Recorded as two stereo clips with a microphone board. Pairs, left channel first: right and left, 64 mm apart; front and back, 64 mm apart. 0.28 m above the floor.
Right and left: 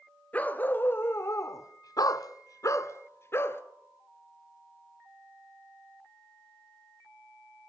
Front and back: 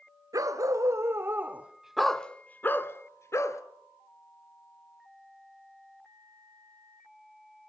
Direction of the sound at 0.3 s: 155° right.